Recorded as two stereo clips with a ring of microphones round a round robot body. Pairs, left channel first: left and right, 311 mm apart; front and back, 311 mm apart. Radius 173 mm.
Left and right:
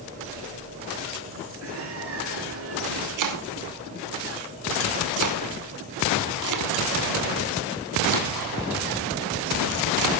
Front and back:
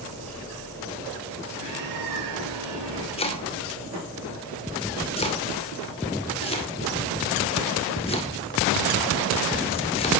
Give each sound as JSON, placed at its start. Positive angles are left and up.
{"t": 1.6, "sound": "a bird", "azimuth_deg": -140, "distance_m": 5.5}
{"t": 3.2, "sound": "chopping", "azimuth_deg": -75, "distance_m": 2.0}